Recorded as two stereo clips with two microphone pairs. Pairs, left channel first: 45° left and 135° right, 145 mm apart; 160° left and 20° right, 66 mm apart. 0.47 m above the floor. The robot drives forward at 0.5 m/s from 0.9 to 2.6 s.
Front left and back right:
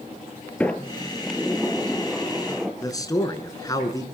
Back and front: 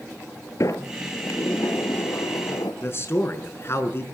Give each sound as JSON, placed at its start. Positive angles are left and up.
{"t": 0.6, "sound": "a sliding door", "azimuth_deg": 130, "distance_m": 2.0}
{"t": 2.8, "sound": "a man speaking", "azimuth_deg": 110, "distance_m": 5.0}